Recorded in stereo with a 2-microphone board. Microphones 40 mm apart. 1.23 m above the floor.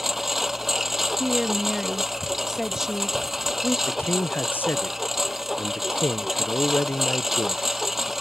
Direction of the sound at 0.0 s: 5° right (ahead or behind).